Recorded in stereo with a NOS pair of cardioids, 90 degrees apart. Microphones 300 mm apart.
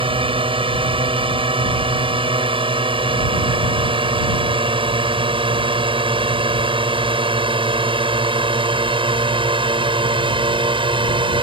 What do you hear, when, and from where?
0.0 s a drone: 15° right